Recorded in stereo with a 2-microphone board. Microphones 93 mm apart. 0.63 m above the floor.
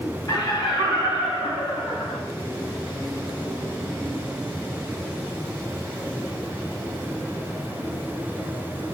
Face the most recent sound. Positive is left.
turn(degrees=60)  # may be behind; listen again after turning